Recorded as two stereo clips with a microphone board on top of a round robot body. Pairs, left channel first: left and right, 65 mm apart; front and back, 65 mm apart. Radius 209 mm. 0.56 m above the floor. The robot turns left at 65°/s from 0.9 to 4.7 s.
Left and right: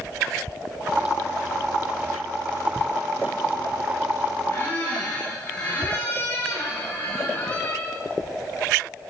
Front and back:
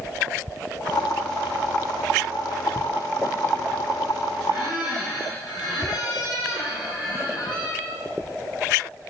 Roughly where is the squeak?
Ahead left.